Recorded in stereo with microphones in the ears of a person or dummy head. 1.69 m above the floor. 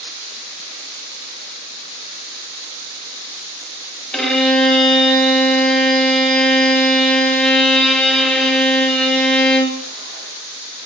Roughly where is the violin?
Centre.